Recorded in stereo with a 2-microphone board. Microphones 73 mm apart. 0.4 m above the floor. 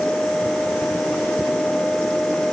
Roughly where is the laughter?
I don't hear laughter.